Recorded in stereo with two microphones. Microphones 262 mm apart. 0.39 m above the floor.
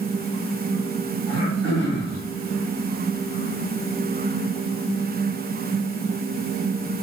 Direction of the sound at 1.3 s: 50° right (ahead or behind).